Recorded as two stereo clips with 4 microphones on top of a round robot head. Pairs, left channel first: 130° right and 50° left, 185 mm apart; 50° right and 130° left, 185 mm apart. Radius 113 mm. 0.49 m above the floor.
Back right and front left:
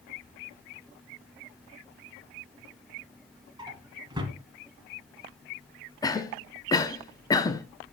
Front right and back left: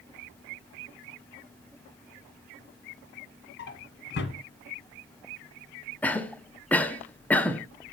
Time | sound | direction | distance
3.6 | a drawer | 20° right | 1.4 m
6.0 | a cough | 115° right | 0.8 m